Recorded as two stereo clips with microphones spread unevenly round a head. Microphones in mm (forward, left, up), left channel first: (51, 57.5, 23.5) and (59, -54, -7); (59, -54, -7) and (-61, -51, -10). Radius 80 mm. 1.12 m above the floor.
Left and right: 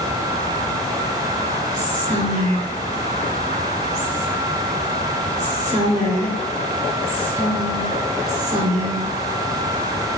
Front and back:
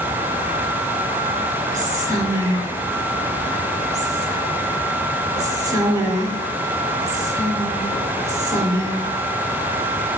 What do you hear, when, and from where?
1.7 s whispering: 125° right, 3 m